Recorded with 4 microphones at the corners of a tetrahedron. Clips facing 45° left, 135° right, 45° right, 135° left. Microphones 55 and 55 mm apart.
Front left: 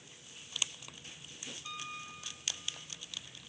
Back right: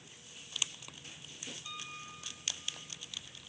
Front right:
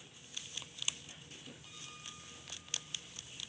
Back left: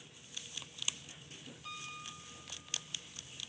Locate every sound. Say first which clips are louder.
1.6 s a piano: front left 4 dB, back left 6 dB; 110° left, 6 m